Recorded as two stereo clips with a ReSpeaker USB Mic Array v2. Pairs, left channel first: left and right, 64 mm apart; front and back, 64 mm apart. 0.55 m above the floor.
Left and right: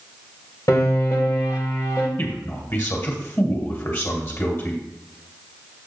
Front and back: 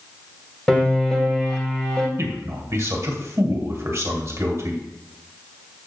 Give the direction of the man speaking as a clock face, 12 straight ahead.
7 o'clock.